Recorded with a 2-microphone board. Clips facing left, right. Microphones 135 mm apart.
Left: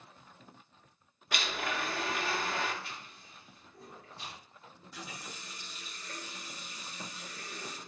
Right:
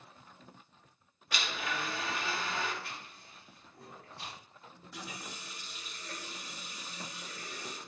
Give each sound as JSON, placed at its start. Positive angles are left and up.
{"t": 1.3, "sound": "a blender", "side_deg": 55, "distance_m": 0.5}
{"t": 2.8, "sound": "chewing", "side_deg": -60, "distance_m": 1.9}
{"t": 4.7, "sound": "a running tap", "side_deg": -60, "distance_m": 1.1}